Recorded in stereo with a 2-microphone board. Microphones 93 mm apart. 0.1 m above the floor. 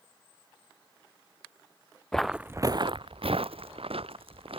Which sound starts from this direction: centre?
Footsteps, at 2.1 s.